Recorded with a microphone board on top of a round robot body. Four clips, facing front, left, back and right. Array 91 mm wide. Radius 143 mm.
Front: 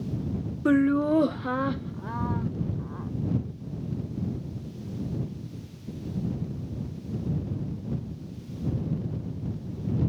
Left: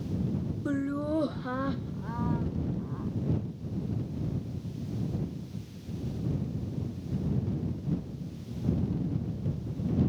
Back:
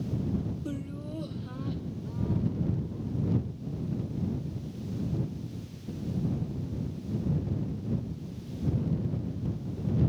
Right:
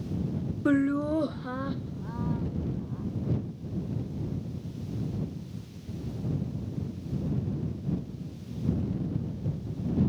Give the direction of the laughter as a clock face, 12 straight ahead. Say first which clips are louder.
Right 6 dB, front 16 dB; 1 o'clock.